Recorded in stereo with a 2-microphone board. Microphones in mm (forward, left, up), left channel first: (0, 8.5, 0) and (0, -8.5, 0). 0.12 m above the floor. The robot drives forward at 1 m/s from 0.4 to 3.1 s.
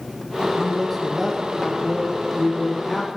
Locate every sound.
0.6 s a man speaking: 5° right (ahead or behind), 5.5 m